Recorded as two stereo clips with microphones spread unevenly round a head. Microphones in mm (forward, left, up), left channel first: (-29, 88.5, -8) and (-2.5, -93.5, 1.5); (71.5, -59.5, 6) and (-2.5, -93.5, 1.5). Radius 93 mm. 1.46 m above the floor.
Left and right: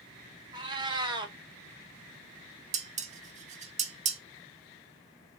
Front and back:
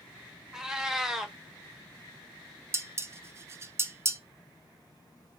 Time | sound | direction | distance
0.5 | a cat meowing | 75° right | 0.7 m
2.7 | dishes clattering | 105° right | 0.5 m